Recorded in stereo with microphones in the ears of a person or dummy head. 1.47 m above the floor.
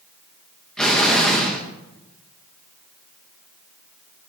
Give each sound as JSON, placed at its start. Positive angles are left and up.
{"t": 0.8, "sound": "an explosion", "side_deg": 5, "distance_m": 1.8}